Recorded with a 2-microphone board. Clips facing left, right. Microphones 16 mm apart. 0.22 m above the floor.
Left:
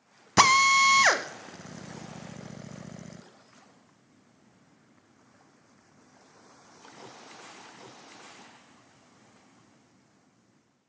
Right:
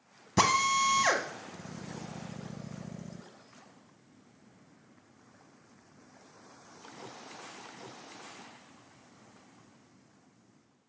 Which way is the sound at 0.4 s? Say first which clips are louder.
Left 7 dB; 35° left (ahead or behind).